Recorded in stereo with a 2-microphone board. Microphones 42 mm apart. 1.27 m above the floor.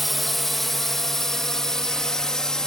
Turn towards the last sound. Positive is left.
turn(degrees=15)  # may be behind; listen again after turning